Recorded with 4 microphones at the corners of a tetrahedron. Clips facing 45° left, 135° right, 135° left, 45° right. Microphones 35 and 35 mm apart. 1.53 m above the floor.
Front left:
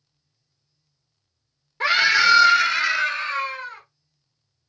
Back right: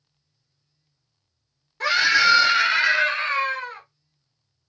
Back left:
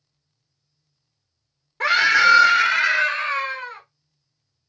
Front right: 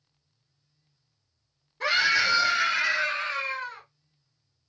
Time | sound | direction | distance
1.8 | a scream | 120° left | 0.5 m